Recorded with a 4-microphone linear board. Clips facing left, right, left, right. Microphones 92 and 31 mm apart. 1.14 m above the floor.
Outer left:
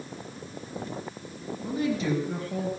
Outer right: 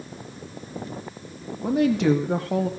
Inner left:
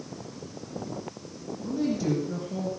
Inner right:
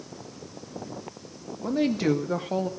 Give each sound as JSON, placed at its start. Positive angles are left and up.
{"t": 1.6, "sound": "a woman speaking", "side_deg": -70, "distance_m": 1.9}